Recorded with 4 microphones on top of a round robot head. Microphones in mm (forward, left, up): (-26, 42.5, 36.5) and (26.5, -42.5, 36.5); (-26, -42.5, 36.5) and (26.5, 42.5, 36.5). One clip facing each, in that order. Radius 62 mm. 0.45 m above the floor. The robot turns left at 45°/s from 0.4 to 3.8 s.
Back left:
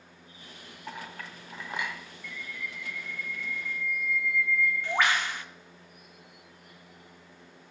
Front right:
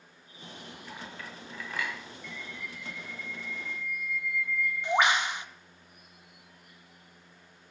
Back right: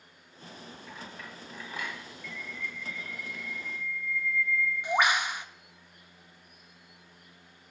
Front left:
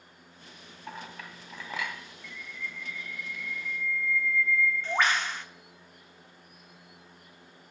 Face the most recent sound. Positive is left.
turn(degrees=-75)